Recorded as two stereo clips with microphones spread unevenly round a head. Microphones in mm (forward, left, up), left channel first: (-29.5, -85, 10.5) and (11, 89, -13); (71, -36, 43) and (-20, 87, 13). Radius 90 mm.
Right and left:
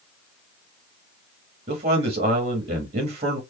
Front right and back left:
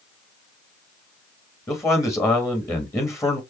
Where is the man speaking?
20° left, 1.5 m.